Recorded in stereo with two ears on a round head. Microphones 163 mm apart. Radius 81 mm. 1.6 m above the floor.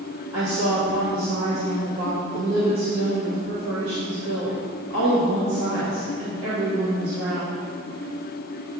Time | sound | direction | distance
0.3 | a woman speaking | 65° right (ahead or behind) | 1.8 m